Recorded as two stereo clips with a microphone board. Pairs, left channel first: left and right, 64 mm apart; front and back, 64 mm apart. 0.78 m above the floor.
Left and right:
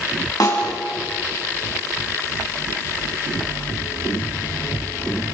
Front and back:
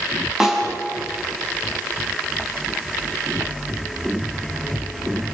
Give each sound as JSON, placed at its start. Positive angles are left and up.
{"t": 0.4, "sound": "a snare drum", "azimuth_deg": 100, "distance_m": 7.5}